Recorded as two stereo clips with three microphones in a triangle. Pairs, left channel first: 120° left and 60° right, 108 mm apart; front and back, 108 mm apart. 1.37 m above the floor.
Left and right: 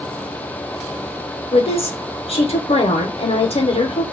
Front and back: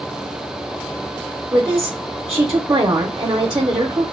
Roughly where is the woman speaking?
Behind left.